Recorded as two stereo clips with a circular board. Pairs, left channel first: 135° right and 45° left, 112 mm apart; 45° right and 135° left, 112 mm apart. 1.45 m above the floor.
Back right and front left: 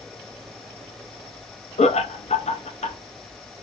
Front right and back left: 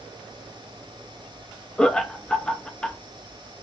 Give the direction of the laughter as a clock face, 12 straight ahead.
4 o'clock.